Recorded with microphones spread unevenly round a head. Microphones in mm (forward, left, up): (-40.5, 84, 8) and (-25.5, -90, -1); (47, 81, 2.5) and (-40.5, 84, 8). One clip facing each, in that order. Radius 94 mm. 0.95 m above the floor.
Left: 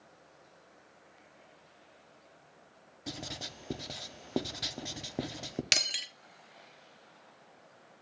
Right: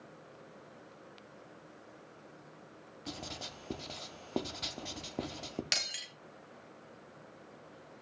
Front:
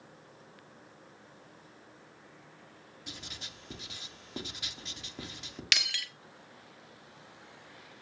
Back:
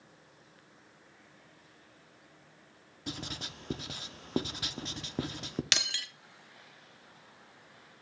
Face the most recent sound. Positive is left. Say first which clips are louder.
# left 3 dB, front 1 dB
turn(degrees=140)